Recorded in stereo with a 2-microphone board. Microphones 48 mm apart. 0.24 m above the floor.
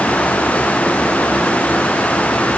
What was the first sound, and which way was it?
Only background noise.